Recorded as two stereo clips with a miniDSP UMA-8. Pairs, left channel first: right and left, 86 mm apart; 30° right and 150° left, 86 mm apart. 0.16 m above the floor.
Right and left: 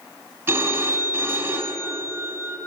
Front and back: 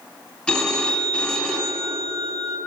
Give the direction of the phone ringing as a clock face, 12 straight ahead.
10 o'clock.